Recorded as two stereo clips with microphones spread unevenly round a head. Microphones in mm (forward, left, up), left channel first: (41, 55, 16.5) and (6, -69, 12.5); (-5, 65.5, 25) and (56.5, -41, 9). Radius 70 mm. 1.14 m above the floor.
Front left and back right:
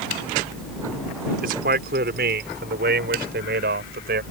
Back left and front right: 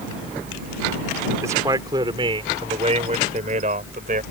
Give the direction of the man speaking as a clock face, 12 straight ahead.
4 o'clock.